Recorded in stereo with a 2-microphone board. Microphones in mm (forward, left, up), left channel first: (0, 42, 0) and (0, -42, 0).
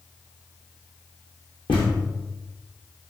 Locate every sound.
1.7 s a thud: 75° left (ahead or behind), 3 m